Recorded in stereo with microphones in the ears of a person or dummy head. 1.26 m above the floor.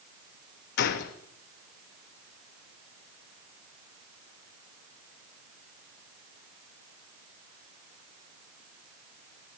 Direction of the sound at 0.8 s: 60° left (ahead or behind).